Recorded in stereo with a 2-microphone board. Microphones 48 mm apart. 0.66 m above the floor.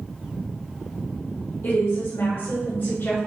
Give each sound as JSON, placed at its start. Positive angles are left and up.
{"t": 1.6, "sound": "a woman speaking", "side_deg": 75, "distance_m": 1.8}